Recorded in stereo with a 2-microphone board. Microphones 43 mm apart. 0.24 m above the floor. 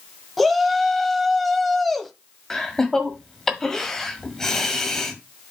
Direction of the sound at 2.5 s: 10° left (ahead or behind).